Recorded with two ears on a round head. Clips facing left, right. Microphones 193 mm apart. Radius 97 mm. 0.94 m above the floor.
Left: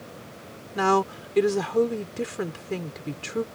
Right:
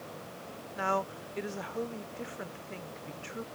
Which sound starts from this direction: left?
A woman speaking, at 0.8 s.